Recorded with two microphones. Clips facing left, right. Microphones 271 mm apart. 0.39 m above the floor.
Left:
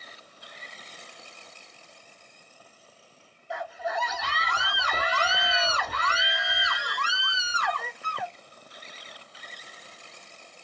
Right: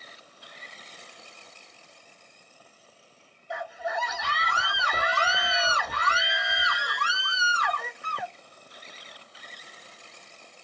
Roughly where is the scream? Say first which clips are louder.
Left 1 dB; centre.